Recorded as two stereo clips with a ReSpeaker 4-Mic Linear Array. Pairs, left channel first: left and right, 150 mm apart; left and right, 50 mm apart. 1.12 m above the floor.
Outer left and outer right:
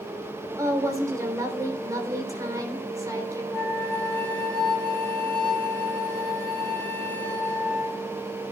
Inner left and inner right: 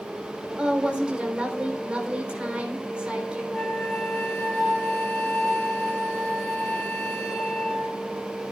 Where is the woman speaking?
25° right (ahead or behind), 3.5 m.